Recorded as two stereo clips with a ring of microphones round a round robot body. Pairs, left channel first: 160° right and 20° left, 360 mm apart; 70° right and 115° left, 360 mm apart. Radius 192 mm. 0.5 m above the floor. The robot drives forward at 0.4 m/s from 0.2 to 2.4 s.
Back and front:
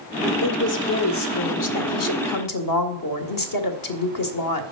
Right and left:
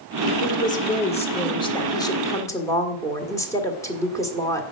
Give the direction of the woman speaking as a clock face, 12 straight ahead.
4 o'clock.